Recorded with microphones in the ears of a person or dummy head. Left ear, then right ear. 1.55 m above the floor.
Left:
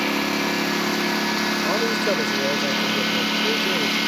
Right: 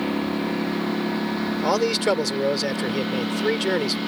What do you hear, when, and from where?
0.0 s a lawn mower: 70° left (ahead or behind); by 4.1 s 75° left (ahead or behind)
1.6 s a man speaking: 40° right (ahead or behind)